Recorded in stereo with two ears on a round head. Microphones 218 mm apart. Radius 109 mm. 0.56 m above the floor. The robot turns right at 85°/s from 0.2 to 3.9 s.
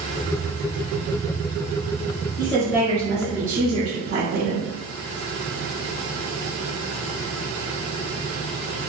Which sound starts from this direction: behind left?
A woman speaking, at 2.4 s.